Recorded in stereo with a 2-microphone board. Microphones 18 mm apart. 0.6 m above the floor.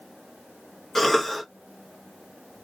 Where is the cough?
20° left (ahead or behind), 0.7 m.